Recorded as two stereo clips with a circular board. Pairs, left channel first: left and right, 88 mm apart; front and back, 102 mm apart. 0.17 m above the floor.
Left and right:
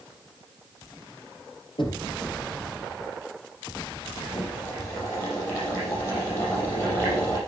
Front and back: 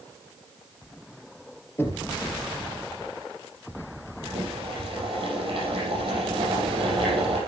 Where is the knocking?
65° left, 3 m.